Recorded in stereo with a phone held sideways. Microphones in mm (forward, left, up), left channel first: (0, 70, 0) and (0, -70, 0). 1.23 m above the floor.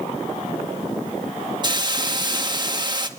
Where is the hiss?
30° right (ahead or behind), 1.6 m.